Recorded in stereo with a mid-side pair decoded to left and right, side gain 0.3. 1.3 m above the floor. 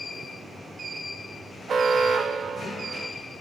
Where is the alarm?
70° right, 0.9 m.